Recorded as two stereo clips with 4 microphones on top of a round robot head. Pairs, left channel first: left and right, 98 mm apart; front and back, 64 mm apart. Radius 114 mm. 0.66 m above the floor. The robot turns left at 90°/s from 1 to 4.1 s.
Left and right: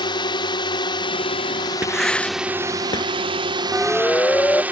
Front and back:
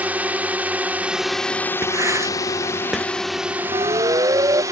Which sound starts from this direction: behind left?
A drone, at 0.0 s.